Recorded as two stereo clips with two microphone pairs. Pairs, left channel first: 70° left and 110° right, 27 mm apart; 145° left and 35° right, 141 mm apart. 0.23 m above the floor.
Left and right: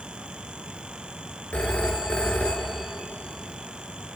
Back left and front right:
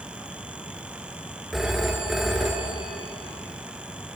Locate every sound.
1.5 s a phone ringing: 55° left, 2 m